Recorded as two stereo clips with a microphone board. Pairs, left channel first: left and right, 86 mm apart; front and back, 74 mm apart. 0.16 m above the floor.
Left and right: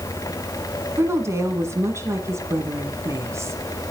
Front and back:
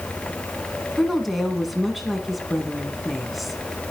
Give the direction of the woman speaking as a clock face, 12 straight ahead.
3 o'clock.